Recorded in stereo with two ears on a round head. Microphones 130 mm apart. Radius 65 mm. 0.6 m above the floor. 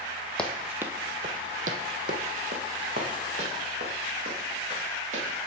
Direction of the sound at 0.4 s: 5° left (ahead or behind).